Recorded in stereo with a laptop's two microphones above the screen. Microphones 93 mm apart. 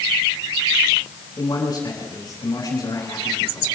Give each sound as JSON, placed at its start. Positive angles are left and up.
{"t": 1.4, "sound": "a man speaking", "side_deg": 45, "distance_m": 9.0}